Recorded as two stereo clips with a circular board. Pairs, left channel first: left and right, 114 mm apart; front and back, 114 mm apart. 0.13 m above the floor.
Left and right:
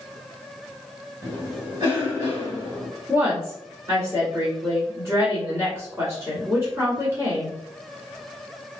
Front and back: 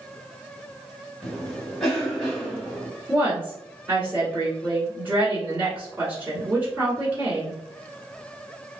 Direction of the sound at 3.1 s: 125° right.